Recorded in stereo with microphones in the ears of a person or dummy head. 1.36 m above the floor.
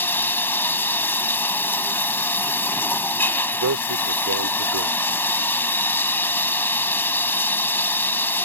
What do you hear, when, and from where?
0.0 s running water: 15° left (ahead or behind)
3.5 s a man speaking: 85° right